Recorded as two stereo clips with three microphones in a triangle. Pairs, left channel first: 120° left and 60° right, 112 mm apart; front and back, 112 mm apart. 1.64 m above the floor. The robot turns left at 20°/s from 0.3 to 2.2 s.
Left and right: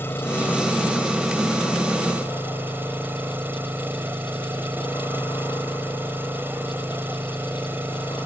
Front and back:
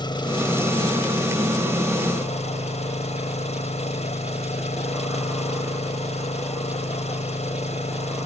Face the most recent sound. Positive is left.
turn(degrees=10)